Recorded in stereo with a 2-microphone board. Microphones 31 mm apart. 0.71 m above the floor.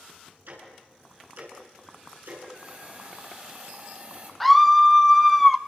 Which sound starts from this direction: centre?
A scream, at 4.4 s.